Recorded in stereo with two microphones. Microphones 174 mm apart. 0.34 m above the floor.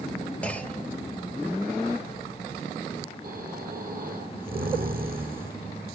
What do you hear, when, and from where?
0.4 s a clunk: 5° left (ahead or behind), 1.4 m
3.2 s snoring: 60° right (ahead or behind), 3 m